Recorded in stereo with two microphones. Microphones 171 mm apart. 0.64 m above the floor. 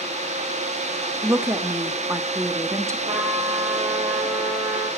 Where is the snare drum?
No snare drum in this recording.